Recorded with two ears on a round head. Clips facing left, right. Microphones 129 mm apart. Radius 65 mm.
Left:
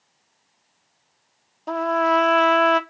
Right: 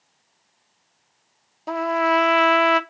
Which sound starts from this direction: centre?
A trumpet, at 1.7 s.